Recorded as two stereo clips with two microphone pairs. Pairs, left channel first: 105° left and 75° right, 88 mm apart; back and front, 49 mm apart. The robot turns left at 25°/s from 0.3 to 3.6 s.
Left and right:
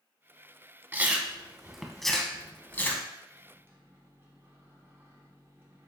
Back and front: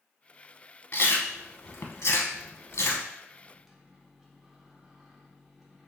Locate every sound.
0.9 s chewing: 140° right, 0.5 m; by 3.1 s 165° left, 0.5 m
3.3 s a microwave: 65° right, 0.8 m; by 5.9 s 70° right, 0.8 m